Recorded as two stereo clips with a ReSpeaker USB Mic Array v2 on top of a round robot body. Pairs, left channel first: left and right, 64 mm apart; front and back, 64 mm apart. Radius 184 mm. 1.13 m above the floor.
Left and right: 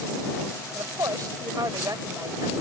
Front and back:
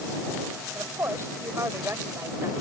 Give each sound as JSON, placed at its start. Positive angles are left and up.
{"t": 0.7, "sound": "a woman speaking", "azimuth_deg": -125}